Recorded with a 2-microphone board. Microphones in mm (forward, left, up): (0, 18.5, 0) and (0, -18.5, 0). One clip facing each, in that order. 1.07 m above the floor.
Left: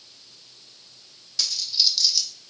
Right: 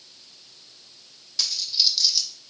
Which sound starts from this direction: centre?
A dropped coin, at 1.4 s.